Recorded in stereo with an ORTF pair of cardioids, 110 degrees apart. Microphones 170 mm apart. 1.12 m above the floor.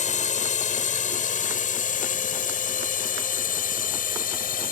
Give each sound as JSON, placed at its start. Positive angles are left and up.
{"t": 0.0, "sound": "a drone", "azimuth_deg": 45}